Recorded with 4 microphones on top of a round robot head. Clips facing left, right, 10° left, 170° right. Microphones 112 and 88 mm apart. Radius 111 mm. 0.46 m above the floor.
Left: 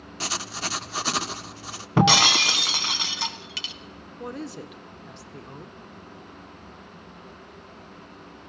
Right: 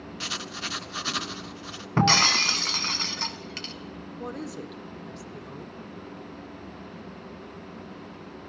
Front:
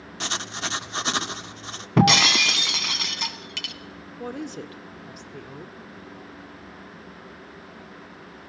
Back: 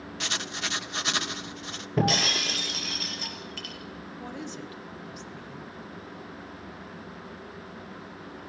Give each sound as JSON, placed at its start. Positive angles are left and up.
{"t": 0.2, "sound": "writing", "azimuth_deg": 55, "distance_m": 1.0}
{"t": 2.0, "sound": "breaking glass", "azimuth_deg": 10, "distance_m": 1.4}
{"t": 4.2, "sound": "a woman speaking", "azimuth_deg": 0, "distance_m": 1.7}